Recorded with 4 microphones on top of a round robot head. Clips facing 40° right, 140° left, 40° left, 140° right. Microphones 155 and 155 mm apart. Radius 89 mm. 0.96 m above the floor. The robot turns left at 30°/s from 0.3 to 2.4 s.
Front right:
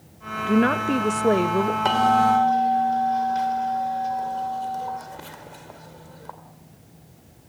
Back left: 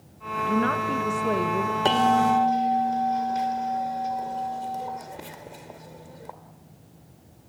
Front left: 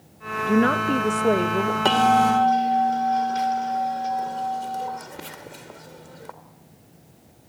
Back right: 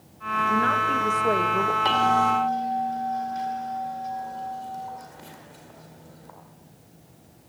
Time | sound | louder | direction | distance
0.5 | a woman speaking | front right 5 dB, front left 7 dB | 5° left | 0.7 m
1.9 | a bell | front right 1 dB, front left 5 dB | 80° left | 1.9 m